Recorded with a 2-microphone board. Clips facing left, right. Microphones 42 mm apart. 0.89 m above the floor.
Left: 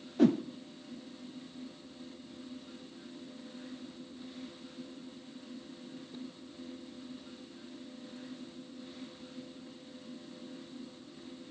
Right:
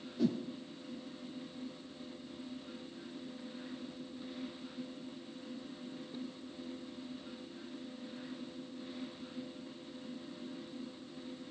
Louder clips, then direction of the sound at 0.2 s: Left 8 dB; 50° left (ahead or behind).